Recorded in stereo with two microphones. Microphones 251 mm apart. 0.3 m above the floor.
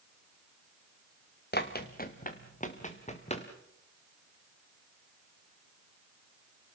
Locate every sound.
1.5 s running footsteps: 40° left (ahead or behind), 2 m; by 3.5 s 25° left (ahead or behind), 3.5 m